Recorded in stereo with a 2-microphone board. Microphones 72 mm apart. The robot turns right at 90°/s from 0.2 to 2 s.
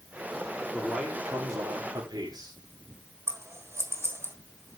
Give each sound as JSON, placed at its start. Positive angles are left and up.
{"t": 0.7, "sound": "a man speaking", "azimuth_deg": 170, "distance_m": 4.5}
{"t": 3.3, "sound": "scissors", "side_deg": -40, "distance_m": 1.5}